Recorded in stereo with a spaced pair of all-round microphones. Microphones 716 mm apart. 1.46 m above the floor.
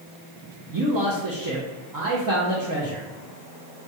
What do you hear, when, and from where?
0.7 s a man speaking: 30° right (ahead or behind), 0.7 m